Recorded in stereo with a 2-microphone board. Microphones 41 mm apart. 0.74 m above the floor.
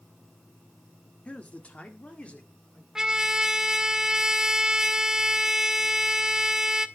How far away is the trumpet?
About 0.6 m.